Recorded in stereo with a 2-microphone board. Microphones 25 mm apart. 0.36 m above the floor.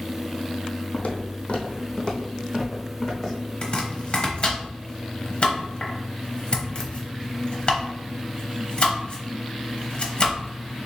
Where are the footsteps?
65° left (ahead or behind), 0.9 m; by 3.4 s 15° left (ahead or behind), 1.6 m.